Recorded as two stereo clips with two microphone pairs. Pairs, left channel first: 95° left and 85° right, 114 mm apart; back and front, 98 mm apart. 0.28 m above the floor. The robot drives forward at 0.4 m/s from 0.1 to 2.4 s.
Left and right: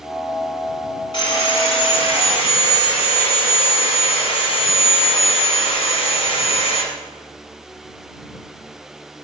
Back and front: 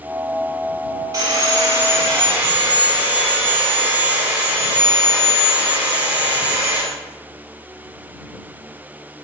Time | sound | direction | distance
1.1 | sawing | 50° left | 1.3 m